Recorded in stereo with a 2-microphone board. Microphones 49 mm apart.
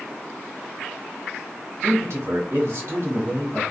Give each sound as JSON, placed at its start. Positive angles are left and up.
{"t": 1.8, "sound": "a man speaking", "side_deg": -65, "distance_m": 1.2}